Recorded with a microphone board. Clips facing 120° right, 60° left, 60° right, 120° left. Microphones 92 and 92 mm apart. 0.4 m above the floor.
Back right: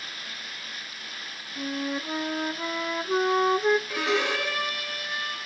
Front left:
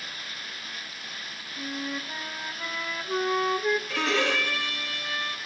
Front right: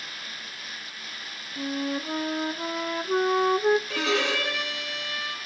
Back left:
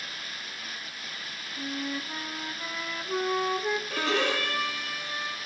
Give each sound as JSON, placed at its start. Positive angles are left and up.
{"t": 1.6, "sound": "a flute", "azimuth_deg": -70, "distance_m": 0.8}
{"t": 3.9, "sound": "a violin", "azimuth_deg": -45, "distance_m": 7.0}